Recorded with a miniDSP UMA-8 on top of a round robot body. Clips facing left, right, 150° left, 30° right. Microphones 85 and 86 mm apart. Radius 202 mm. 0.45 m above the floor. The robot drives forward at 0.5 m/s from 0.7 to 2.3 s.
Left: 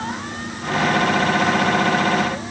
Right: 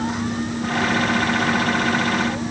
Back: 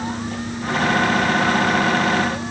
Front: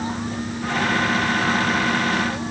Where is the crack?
No crack in this recording.